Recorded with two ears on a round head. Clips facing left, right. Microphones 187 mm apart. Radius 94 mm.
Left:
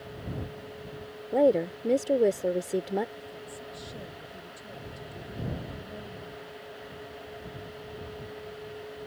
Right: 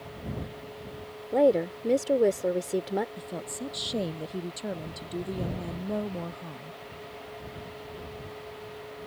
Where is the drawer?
I don't hear a drawer.